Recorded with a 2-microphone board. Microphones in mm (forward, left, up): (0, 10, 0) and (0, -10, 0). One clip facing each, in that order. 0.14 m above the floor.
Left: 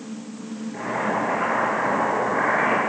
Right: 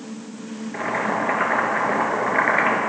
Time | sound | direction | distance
0.7 | boiling | 50° right (ahead or behind) | 1.7 m